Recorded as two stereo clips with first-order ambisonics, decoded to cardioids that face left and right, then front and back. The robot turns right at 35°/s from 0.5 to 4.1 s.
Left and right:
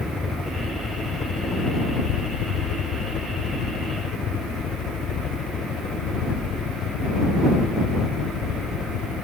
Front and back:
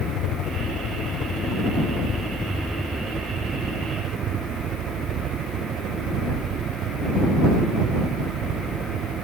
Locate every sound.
0.0 s a helicopter: 15° left; by 9.2 s 135° left